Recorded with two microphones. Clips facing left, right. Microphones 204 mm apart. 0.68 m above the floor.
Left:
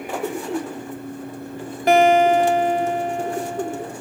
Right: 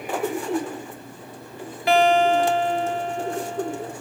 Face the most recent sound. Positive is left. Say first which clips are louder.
# left 3 dB
turn(degrees=45)  # may be behind; listen again after turning